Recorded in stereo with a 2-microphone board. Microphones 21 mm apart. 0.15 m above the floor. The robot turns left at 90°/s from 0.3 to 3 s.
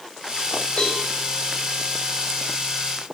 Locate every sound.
0.8 s a cowbell: 45° left (ahead or behind), 5.5 m; by 1.0 s 65° left (ahead or behind), 5.5 m